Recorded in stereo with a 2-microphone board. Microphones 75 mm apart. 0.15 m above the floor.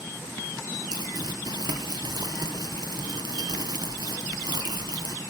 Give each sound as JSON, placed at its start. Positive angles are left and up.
{"t": 0.9, "sound": "crumpling", "side_deg": -65, "distance_m": 1.5}